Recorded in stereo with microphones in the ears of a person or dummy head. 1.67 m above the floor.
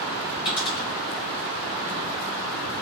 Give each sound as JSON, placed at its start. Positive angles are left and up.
{"t": 0.5, "sound": "a dropped coin", "side_deg": 25, "distance_m": 2.0}